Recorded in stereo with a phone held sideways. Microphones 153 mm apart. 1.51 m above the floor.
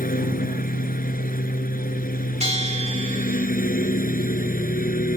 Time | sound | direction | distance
0.0 | a lawn mower | 75° left (ahead or behind) | ?
2.4 | a bell | 45° right (ahead or behind) | ?